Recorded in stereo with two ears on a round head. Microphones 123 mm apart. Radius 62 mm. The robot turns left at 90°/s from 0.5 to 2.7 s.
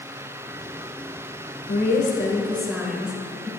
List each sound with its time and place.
1.7 s a woman speaking: 85° left, 2 m; by 3.5 s 5° right, 2 m